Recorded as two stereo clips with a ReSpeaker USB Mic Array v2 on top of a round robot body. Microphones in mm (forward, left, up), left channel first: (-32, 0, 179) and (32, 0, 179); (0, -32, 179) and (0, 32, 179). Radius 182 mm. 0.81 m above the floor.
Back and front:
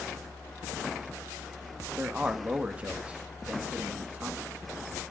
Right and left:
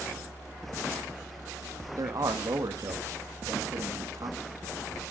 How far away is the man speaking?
About 2 m.